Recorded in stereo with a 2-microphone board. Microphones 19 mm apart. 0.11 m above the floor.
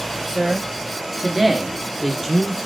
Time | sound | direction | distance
0.3 | a man speaking | 20° right (ahead or behind) | 2.0 m